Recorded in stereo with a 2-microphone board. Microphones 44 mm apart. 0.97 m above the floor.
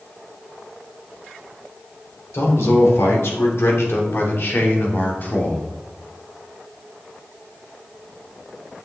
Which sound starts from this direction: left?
A man speaking, at 2.3 s.